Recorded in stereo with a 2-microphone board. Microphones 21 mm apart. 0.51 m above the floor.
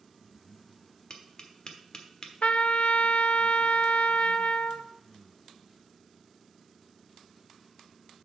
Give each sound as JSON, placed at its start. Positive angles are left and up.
{"t": 1.1, "sound": "tapping", "side_deg": 40, "distance_m": 1.3}
{"t": 2.4, "sound": "a trumpet", "side_deg": 85, "distance_m": 0.6}